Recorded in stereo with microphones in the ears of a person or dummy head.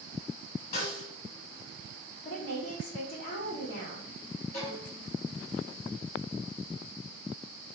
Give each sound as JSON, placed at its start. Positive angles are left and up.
{"t": 0.7, "sound": "a snare drum", "side_deg": 40, "distance_m": 1.0}
{"t": 2.2, "sound": "a woman speaking", "side_deg": 80, "distance_m": 1.4}
{"t": 4.5, "sound": "a violin", "side_deg": 50, "distance_m": 1.4}